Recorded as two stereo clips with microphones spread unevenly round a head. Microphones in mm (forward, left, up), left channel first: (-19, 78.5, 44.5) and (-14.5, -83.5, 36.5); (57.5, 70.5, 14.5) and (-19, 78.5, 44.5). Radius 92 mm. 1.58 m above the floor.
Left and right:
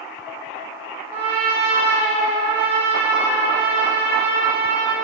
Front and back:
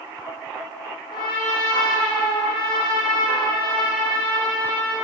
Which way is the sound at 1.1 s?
20° right.